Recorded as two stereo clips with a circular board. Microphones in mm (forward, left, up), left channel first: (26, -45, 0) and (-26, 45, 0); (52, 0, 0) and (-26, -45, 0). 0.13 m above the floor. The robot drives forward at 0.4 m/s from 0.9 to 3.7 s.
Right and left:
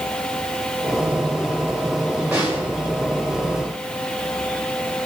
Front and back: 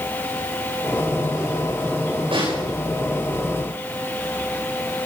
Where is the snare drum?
160° right, 9 m.